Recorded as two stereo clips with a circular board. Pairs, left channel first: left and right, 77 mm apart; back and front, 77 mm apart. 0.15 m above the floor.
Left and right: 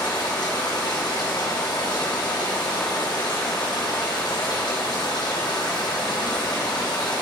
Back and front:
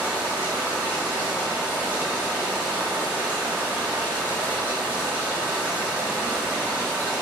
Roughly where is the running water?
Left.